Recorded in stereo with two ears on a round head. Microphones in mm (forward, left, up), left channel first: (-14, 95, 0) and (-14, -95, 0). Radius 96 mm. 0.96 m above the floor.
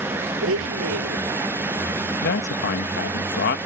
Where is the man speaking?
55° left (ahead or behind).